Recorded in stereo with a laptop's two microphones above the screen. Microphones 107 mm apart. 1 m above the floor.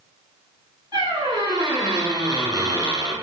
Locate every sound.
0.9 s a squeak: 35° right (ahead or behind), 1.2 m